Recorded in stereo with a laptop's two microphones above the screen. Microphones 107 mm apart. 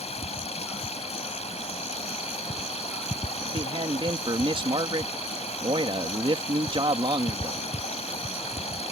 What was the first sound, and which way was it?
Running water, 85° left.